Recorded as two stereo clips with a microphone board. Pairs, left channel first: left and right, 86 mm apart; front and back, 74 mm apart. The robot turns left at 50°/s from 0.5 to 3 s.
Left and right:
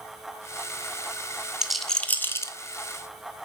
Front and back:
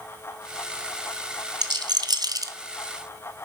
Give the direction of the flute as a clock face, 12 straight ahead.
I don't hear a flute.